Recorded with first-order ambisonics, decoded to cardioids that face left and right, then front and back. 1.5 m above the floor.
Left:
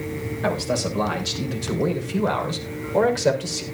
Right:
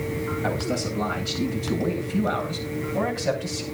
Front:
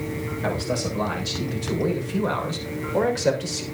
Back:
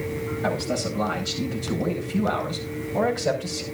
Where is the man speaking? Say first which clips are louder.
Left 6 dB, front 1 dB; 80° left, 7 m; by 3.6 s 60° left, 6 m.